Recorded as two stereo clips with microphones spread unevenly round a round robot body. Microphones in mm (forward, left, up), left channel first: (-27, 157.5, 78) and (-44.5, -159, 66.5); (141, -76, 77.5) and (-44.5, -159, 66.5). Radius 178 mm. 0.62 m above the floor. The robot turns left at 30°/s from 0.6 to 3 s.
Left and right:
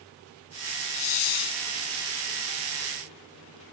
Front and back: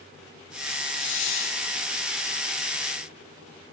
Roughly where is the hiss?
Left.